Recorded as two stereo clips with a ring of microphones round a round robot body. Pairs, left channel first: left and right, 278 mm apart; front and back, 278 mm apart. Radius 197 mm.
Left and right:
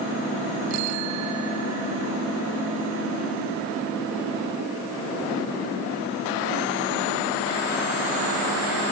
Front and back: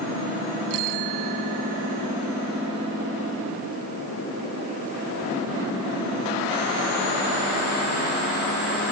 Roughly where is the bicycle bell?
Behind right.